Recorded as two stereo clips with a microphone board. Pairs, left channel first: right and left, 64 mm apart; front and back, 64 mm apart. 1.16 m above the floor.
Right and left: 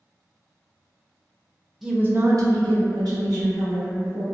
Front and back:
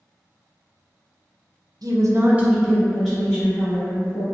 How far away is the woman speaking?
About 0.6 m.